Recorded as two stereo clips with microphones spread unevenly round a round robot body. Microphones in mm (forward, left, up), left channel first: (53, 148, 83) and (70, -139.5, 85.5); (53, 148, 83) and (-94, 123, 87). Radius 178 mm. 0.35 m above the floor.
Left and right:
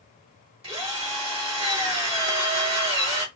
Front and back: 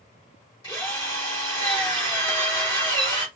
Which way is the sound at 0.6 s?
25° right.